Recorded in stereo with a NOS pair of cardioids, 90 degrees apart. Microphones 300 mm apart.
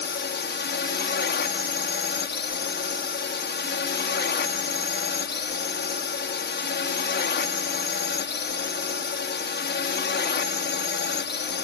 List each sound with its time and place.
0.0 s a drone: 35° left